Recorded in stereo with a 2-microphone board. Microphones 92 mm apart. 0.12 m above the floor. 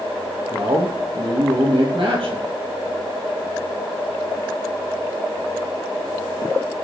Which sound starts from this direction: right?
A man speaking, at 0.5 s.